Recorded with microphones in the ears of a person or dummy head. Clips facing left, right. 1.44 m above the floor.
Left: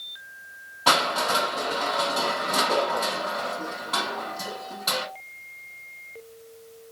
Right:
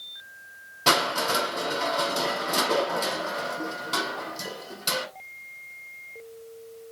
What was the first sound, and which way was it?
Crushing, 40° right (ahead or behind).